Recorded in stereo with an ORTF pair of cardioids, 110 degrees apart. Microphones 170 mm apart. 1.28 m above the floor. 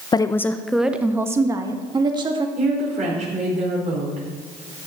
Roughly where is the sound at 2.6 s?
Ahead right.